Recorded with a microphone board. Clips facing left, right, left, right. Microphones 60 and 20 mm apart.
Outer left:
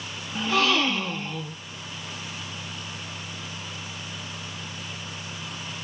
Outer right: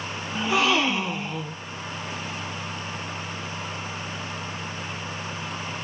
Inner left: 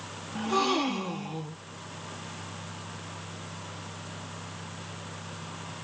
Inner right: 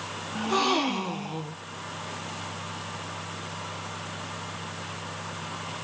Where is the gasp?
15° right (ahead or behind), 0.6 m.